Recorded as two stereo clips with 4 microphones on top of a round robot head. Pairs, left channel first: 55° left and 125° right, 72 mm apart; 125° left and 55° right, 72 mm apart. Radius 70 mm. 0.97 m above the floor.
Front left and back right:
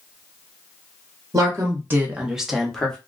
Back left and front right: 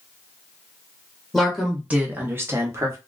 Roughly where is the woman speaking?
Behind right.